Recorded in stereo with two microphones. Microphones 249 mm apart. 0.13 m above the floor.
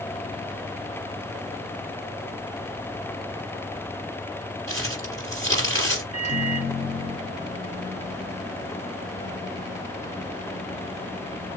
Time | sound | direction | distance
4.7 | crumpling | 15° left (ahead or behind) | 3.5 m
6.1 | a microwave | 25° left (ahead or behind) | 1.1 m